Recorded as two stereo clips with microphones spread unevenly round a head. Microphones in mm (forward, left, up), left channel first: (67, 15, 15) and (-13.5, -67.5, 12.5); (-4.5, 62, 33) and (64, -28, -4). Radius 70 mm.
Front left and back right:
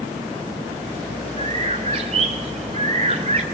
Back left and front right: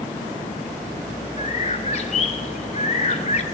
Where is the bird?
175° left, 3 m.